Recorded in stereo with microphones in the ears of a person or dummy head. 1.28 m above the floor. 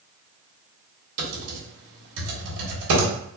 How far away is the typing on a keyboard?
About 1.5 m.